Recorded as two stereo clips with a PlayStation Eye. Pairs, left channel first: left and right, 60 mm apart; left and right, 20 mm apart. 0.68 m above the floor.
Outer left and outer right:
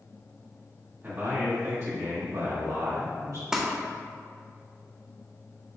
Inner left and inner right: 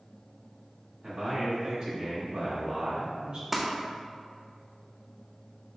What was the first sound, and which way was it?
A man speaking, 40° right (ahead or behind).